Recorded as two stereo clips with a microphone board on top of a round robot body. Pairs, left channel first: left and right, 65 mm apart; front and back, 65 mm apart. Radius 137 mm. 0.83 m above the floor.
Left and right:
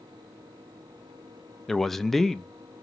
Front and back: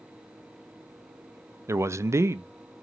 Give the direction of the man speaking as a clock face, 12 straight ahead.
6 o'clock.